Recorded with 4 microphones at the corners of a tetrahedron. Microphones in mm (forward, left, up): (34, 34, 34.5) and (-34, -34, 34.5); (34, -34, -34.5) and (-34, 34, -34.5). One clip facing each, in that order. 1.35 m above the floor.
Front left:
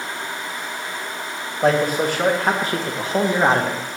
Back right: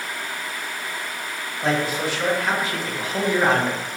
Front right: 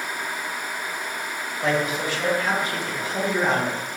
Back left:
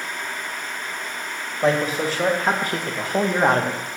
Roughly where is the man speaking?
Left.